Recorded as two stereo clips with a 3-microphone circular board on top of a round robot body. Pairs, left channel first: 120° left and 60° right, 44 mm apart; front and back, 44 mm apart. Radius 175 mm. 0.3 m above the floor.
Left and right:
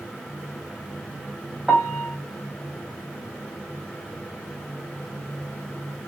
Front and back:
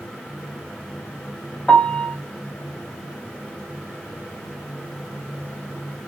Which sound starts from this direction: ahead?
A piano, at 1.7 s.